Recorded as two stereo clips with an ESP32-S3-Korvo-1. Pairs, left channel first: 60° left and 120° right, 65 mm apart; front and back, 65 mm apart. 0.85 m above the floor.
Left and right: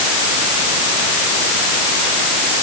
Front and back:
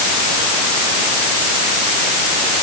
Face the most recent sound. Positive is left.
No sound to turn to.